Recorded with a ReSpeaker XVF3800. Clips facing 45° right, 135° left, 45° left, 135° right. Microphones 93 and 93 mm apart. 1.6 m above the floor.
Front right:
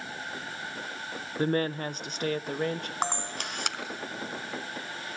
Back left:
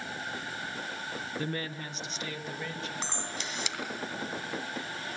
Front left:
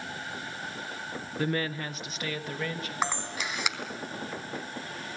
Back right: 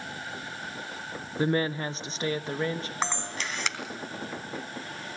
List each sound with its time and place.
1.4 s a woman speaking: 75° right, 0.6 m
3.0 s a camera shutter: 35° right, 2.5 m